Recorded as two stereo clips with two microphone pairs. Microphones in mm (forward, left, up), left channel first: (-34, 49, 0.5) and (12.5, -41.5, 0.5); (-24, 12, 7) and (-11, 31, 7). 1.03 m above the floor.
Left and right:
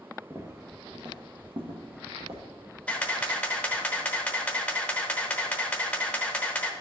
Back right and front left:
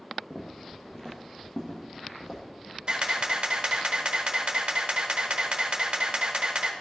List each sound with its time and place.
0.3 s footsteps: 95° right, 1.1 m; by 2.4 s 65° right, 2 m
2.9 s a camera shutter: 45° left, 0.9 m